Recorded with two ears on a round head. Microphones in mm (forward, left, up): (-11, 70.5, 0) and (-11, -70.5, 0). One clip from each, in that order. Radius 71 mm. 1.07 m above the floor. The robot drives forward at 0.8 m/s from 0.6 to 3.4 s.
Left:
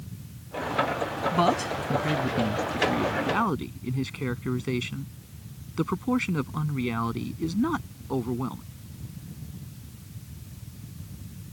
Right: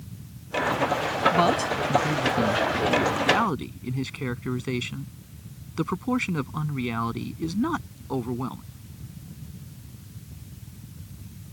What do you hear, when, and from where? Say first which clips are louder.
1.3 s a man speaking: right 2 dB; 15° right (ahead or behind)